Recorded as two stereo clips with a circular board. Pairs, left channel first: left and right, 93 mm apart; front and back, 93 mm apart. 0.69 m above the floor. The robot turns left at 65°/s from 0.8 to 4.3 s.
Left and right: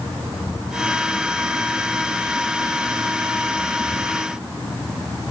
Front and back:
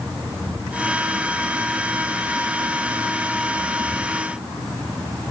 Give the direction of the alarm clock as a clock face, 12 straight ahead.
I don't hear an alarm clock.